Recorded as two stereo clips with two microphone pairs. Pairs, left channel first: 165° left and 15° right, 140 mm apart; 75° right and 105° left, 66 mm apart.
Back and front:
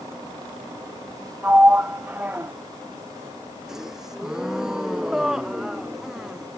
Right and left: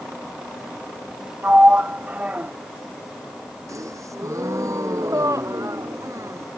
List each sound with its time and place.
1.4 s a sliding door: 55° left
3.7 s a gasp: 75° left